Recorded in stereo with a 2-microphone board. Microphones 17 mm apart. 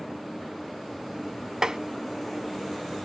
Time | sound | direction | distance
1.6 | tapping | 40° right (ahead or behind) | 0.6 m